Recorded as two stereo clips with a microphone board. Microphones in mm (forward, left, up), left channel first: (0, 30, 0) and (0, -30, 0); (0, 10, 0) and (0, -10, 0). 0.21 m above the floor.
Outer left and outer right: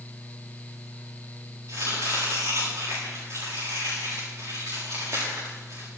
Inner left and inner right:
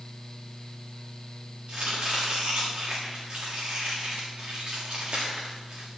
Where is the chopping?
65° right (ahead or behind), 8 m.